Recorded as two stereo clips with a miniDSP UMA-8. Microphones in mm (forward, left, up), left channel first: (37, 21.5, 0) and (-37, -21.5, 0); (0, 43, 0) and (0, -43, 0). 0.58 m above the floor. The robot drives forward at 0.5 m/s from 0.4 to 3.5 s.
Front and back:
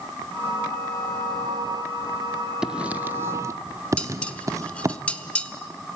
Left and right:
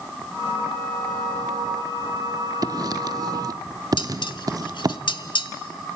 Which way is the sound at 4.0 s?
105° left.